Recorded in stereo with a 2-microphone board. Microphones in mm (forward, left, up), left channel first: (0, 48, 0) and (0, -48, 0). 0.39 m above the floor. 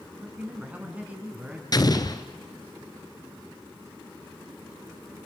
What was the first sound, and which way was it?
A man speaking, 15° right (ahead or behind).